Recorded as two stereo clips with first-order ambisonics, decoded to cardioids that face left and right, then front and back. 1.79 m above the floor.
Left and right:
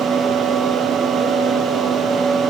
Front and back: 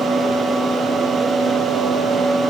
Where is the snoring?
I don't hear snoring.